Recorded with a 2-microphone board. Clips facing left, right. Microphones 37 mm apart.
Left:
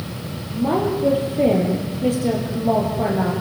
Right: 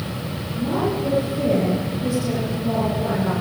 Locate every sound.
0.5 s a woman speaking: 55° left (ahead or behind), 9.5 m